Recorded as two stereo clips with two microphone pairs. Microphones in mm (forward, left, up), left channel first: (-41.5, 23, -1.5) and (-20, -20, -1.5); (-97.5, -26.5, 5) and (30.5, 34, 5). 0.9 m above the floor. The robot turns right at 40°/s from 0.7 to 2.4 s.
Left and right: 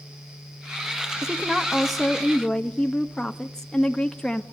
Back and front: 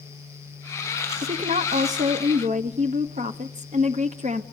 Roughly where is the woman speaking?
Ahead.